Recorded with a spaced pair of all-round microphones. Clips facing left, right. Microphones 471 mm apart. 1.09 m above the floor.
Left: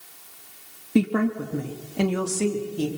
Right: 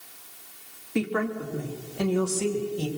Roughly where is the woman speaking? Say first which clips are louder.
Left 6 dB; left.